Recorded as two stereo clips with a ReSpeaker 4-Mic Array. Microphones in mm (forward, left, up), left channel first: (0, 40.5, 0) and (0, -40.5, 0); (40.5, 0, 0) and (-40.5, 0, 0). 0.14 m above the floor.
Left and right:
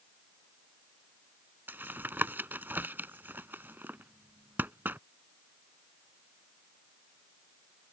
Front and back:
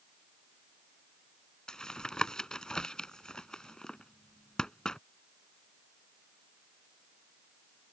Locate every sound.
1.7 s tapping: 70° right